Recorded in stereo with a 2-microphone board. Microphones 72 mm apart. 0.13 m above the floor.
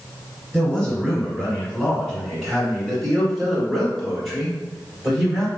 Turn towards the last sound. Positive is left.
turn(degrees=0)  # may be behind; listen again after turning